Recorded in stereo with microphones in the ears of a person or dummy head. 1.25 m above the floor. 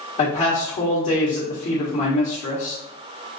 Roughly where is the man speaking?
Left.